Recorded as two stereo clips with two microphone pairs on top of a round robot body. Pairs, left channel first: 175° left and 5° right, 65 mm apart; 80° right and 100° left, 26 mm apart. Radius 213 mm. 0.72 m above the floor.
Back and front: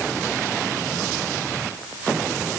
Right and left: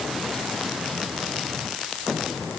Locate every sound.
Only background noise.